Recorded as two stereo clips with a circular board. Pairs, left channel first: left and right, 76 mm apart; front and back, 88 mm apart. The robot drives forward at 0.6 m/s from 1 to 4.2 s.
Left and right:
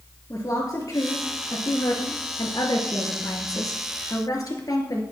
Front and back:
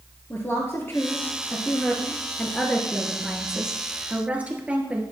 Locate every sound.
0.3 s a woman speaking: 60° left, 2.5 m; by 5.0 s 110° left, 2.5 m